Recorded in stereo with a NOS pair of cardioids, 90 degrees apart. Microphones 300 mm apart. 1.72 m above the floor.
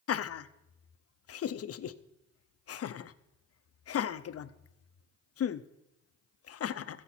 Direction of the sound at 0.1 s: 50° left.